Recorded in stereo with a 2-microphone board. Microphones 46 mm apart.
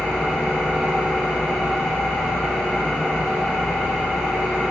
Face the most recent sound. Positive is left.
turn(degrees=15)  # may be behind; listen again after turning